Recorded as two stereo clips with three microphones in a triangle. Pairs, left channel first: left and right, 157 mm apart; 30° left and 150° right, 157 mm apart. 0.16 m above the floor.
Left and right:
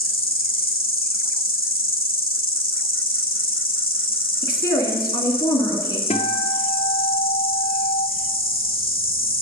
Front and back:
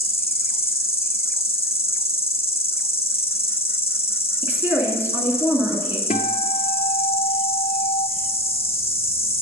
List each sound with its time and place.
0.0 s an insect: 80° left, 1.0 m
4.4 s a woman speaking: 140° left, 1.7 m
6.1 s a guitar: 55° left, 0.7 m